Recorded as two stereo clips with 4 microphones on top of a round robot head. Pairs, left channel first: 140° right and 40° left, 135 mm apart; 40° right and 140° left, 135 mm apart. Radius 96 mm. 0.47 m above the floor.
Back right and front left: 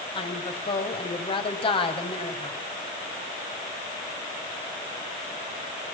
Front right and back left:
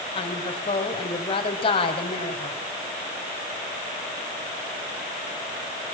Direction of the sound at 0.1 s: 90° right.